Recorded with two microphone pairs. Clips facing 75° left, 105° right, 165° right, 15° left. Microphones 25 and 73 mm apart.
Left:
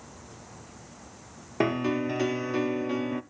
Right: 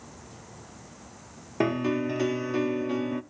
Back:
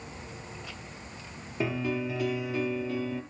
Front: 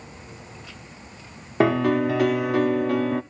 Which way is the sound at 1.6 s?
10° right.